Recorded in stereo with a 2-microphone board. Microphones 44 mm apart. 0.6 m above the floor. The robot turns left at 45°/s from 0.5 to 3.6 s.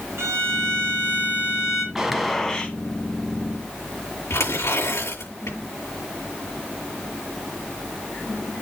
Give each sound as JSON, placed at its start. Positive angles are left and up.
{"t": 0.2, "sound": "a violin", "azimuth_deg": -110, "distance_m": 3.0}
{"t": 1.9, "sound": "a gunshot", "azimuth_deg": -170, "distance_m": 1.5}
{"t": 4.3, "sound": "tearing paper", "side_deg": 85, "distance_m": 7.0}